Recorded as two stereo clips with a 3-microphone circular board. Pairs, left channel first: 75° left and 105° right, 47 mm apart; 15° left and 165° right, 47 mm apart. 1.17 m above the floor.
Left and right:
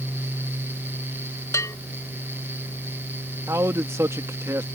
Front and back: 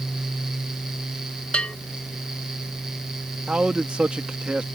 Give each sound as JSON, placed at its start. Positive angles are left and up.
{"t": 1.5, "sound": "a bell", "azimuth_deg": 85}
{"t": 3.5, "sound": "a man speaking", "azimuth_deg": -95}